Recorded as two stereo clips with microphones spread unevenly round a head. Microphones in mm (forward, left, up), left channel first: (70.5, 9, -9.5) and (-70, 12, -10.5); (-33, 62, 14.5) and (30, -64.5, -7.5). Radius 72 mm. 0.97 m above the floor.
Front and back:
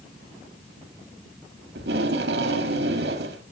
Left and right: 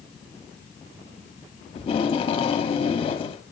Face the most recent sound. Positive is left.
turn(degrees=175)